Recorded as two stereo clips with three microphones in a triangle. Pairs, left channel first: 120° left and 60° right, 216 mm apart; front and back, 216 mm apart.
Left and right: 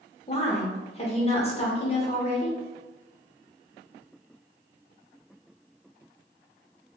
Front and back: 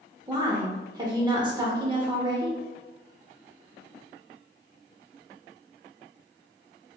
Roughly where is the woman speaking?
Behind left.